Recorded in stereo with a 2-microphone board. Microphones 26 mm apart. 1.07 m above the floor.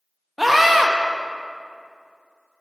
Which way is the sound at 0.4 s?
10° right (ahead or behind).